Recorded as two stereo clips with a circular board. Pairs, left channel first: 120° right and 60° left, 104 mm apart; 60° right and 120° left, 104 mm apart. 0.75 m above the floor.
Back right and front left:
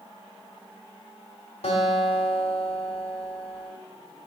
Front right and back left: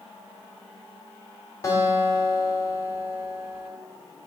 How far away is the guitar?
About 1.8 m.